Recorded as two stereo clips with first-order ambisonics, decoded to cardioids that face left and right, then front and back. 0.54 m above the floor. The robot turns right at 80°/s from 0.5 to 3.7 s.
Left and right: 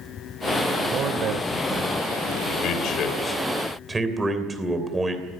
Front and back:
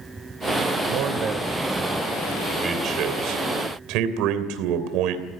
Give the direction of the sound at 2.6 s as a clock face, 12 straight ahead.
8 o'clock.